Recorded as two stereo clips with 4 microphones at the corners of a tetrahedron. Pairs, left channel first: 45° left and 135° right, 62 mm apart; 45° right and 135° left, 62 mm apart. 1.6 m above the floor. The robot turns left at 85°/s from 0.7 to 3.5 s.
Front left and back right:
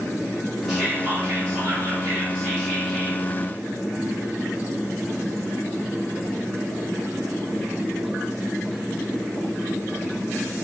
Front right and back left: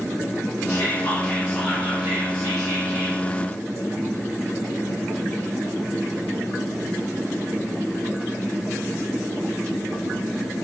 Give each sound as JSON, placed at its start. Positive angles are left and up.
{"t": 0.7, "sound": "whispering", "azimuth_deg": -50, "distance_m": 0.6}